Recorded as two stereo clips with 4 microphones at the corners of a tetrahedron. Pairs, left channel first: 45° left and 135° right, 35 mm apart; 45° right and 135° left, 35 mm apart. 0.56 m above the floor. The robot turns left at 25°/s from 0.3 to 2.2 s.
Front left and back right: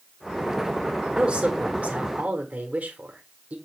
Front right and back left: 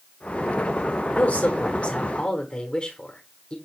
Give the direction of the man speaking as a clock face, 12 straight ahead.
2 o'clock.